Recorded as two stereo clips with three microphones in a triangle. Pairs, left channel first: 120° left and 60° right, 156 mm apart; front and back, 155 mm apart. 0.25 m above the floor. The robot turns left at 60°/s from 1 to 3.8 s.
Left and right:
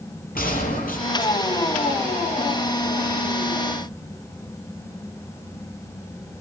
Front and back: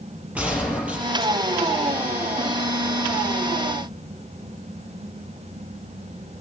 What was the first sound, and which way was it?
A gunshot, 100° left.